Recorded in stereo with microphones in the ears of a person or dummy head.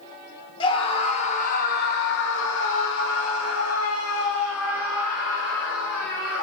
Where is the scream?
25° left (ahead or behind), 1.3 m; by 6.4 s 50° left (ahead or behind), 2.5 m.